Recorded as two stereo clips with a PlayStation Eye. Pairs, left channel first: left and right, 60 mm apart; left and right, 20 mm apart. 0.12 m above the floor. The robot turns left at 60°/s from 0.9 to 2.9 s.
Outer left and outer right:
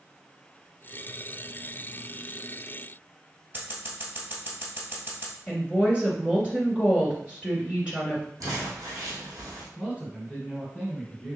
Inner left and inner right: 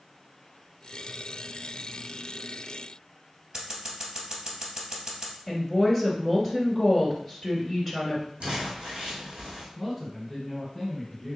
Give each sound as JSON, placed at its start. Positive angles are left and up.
{"t": 3.5, "sound": "scissors", "side_deg": -40, "distance_m": 1.7}
{"t": 5.5, "sound": "a woman speaking", "side_deg": -20, "distance_m": 1.8}
{"t": 8.4, "sound": "crumpling", "side_deg": -75, "distance_m": 3.0}
{"t": 9.8, "sound": "a man speaking", "side_deg": -25, "distance_m": 2.0}